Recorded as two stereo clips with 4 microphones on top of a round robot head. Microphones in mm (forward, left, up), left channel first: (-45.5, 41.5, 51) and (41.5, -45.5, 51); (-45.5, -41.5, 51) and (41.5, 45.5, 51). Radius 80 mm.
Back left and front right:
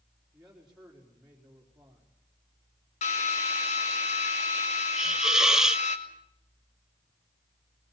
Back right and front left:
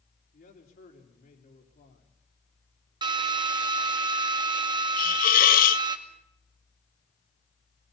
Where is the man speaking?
130° right, 4 m.